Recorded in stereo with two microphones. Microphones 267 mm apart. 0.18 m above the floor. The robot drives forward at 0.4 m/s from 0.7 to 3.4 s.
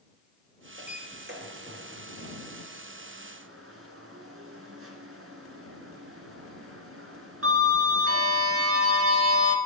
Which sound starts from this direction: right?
A sliding door, at 0.8 s.